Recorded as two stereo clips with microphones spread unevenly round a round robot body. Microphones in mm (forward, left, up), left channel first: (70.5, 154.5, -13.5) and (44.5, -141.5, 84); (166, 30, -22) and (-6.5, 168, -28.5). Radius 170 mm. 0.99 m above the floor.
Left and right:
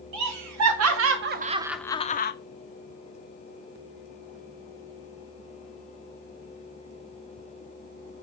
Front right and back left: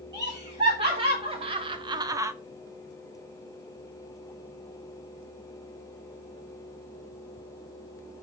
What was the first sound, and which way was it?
Laughter, 140° right.